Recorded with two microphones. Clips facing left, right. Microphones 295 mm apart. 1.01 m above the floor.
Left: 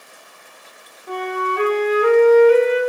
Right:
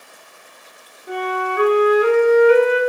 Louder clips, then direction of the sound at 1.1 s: Right 1 dB; 10° right (ahead or behind).